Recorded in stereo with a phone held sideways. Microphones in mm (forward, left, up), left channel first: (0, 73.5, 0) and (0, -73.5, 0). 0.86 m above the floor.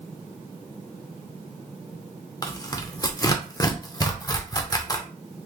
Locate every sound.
2.4 s tearing paper: 25° left (ahead or behind), 0.6 m